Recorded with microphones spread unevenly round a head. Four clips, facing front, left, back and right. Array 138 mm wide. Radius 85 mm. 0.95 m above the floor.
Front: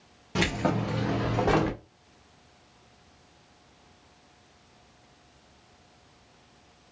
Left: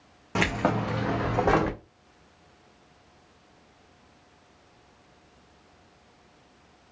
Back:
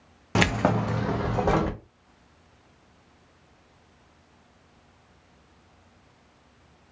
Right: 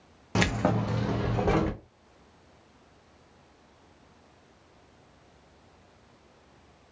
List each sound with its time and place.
0.3 s keys jangling: 145° left, 0.6 m; by 1.8 s 100° left, 1.1 m